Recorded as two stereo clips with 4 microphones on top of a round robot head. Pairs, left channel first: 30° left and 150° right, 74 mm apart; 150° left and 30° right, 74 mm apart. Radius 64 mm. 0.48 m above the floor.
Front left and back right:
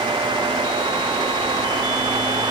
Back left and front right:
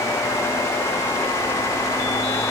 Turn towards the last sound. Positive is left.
No sound to turn to.